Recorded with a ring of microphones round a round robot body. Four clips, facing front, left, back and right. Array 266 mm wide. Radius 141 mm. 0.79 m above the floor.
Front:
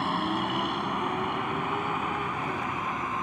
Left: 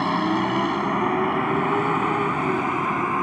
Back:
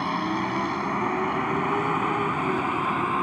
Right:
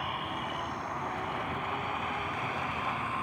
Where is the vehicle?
95° left; by 3.2 s 120° left.